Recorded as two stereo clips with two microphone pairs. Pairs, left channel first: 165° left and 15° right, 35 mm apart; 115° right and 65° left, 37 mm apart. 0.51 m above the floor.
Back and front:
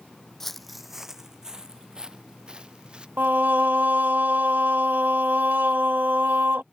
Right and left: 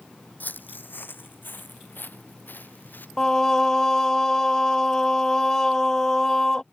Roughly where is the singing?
Ahead right.